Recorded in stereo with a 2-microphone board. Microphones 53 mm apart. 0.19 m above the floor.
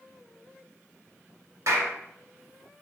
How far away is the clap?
About 1.6 m.